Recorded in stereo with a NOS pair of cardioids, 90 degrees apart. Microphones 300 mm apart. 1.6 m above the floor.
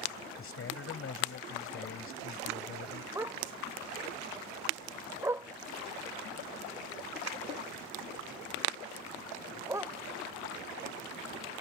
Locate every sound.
0.4 s a man speaking: 45° left
3.1 s a dog barking: 10° right